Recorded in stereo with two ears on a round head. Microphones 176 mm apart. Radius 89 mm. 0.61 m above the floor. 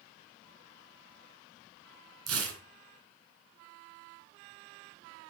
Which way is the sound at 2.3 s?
85° right.